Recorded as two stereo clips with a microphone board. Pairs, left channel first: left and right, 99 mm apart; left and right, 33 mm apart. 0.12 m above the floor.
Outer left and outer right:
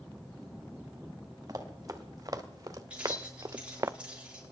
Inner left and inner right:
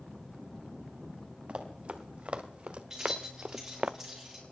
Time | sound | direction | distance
1.5 | running footsteps | 35° right (ahead or behind) | 2.5 m
2.9 | keys jangling | 10° right (ahead or behind) | 7 m